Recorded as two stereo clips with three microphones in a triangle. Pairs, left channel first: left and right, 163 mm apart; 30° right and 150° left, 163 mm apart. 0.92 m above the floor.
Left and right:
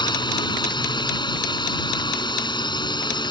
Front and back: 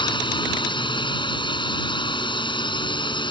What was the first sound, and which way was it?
A drone, 30° left.